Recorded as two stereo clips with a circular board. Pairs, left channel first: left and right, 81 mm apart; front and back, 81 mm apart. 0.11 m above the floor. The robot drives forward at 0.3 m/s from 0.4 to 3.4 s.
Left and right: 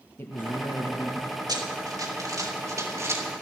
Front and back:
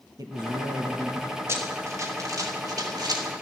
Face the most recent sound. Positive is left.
turn(degrees=-145)